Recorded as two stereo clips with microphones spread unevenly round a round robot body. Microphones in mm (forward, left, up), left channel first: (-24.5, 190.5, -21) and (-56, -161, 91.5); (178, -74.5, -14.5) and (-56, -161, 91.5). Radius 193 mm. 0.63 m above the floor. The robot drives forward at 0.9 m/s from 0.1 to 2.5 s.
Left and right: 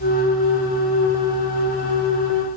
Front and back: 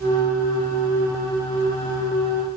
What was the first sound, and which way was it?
Only background noise.